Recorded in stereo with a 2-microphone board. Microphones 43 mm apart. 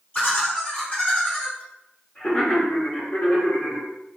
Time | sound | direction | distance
0.1 | laughter | 30° left (ahead or behind) | 0.8 m